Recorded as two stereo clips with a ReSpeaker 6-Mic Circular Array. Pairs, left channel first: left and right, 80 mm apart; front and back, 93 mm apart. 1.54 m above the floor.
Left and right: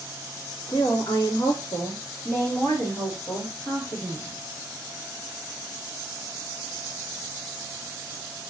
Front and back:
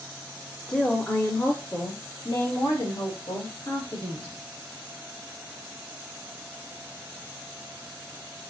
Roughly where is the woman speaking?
Left.